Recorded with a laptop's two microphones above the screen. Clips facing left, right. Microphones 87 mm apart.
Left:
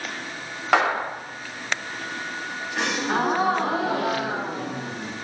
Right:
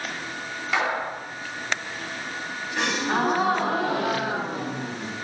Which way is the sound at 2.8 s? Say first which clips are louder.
Even; centre (ahead or behind).